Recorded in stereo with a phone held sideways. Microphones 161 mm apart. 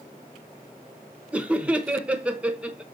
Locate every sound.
1.3 s laughter: 10° right (ahead or behind), 1.0 m